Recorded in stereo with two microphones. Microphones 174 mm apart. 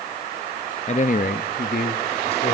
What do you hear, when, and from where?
0.9 s a man speaking: 40° left (ahead or behind), 0.7 m; by 2.5 s 75° left (ahead or behind), 1.7 m